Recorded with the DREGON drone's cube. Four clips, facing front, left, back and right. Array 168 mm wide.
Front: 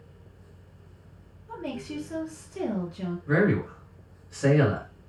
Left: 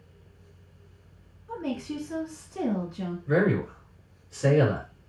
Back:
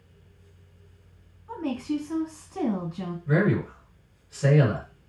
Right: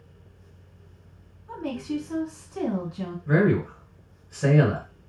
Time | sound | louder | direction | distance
1.5 | a woman speaking | right 2 dB, back 6 dB | 155° right | 2.5 m
3.3 | a man speaking | right 2 dB, even | 85° right | 2 m